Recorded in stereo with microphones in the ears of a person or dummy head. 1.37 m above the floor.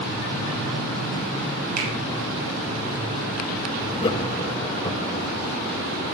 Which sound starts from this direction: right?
A finger snap, at 1.8 s.